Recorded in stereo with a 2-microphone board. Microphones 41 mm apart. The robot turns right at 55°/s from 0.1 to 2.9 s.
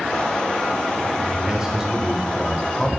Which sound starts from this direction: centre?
A man speaking, at 1.5 s.